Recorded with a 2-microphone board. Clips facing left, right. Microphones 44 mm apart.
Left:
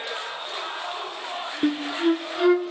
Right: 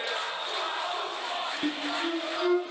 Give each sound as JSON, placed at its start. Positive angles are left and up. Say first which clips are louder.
{"t": 1.6, "sound": "a flute", "louder": "left 11 dB", "side_deg": 35, "distance_m": 0.7}